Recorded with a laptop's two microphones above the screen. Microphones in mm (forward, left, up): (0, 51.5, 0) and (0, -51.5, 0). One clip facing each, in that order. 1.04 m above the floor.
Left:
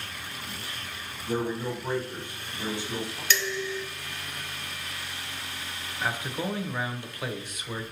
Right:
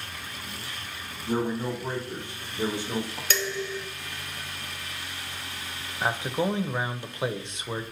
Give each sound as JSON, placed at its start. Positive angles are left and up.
{"t": 1.3, "sound": "a man speaking", "side_deg": -35, "distance_m": 1.7}
{"t": 3.3, "sound": "dishes clattering", "side_deg": -45, "distance_m": 0.6}
{"t": 6.0, "sound": "a man speaking", "side_deg": -25, "distance_m": 0.6}